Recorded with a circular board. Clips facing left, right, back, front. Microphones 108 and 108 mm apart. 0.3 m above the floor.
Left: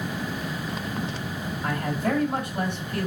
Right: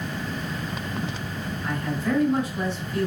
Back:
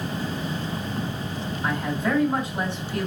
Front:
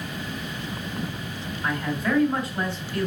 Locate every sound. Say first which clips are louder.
1.6 s a man speaking: left 1 dB, even; 115° left, 4.5 m